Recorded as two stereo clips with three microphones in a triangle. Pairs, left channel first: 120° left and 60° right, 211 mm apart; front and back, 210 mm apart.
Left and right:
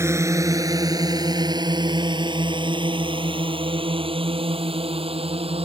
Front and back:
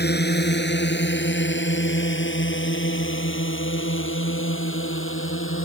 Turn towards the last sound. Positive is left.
turn(degrees=0)